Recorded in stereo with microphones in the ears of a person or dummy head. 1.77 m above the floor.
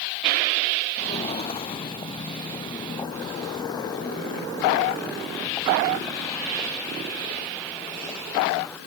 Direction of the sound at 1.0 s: 25° left (ahead or behind).